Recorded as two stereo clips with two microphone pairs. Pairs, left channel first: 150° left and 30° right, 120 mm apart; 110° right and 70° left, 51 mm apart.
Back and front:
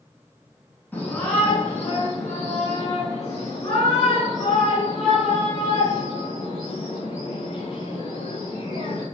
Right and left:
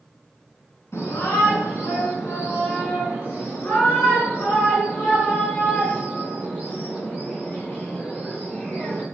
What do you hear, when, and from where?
0.9 s a shout: 140° right, 7.5 m; by 9.0 s 165° right, 14.5 m